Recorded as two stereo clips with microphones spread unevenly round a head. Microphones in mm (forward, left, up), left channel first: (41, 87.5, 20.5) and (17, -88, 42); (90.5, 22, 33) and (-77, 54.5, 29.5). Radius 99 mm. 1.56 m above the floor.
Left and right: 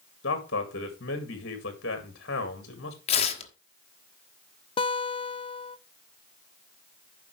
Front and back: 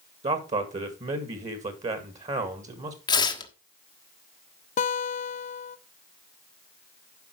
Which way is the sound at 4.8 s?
20° left.